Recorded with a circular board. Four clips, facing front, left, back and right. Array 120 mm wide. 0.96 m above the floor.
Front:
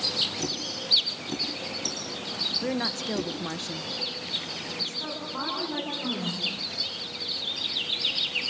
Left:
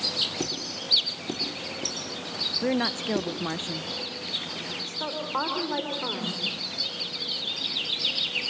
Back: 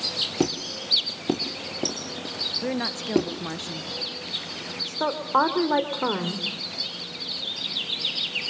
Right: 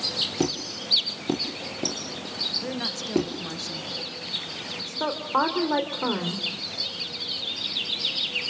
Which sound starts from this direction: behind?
A woman speaking, at 4.9 s.